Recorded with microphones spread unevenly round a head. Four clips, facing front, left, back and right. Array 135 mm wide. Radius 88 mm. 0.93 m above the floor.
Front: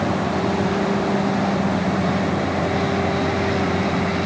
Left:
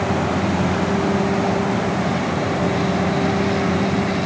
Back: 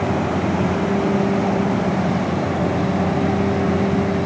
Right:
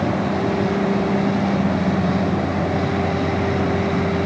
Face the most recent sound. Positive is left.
No sound to turn to.